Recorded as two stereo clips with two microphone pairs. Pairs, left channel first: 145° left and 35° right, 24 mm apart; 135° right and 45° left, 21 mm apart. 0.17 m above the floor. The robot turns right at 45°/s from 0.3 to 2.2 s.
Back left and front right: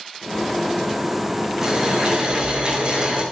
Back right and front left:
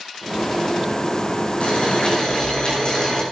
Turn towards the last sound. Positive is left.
turn(degrees=-85)